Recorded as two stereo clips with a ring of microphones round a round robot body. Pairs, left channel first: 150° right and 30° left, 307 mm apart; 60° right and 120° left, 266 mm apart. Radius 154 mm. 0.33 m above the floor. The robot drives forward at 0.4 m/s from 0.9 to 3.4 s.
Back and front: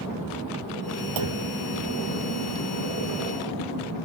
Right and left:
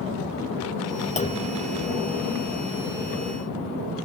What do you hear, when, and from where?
1.2 s a clunk: 5° left